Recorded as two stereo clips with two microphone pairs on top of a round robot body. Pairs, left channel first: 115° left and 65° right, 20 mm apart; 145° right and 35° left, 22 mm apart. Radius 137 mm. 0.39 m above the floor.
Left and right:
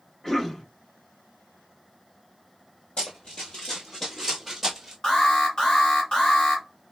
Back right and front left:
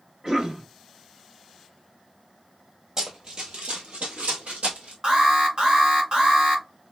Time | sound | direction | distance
0.2 | a cough | 25° left | 1.2 m
3.0 | running footsteps | 95° left | 1.1 m
5.0 | an alarm | 65° left | 2.5 m